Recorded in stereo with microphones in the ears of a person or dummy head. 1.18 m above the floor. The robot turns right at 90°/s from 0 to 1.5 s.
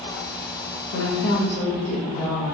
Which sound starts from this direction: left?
A woman speaking, at 0.9 s.